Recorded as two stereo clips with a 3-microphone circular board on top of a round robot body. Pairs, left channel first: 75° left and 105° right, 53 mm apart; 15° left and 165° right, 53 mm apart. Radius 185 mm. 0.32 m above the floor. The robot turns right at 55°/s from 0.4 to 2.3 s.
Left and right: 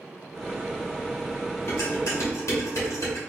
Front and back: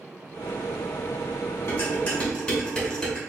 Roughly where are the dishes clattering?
Ahead left.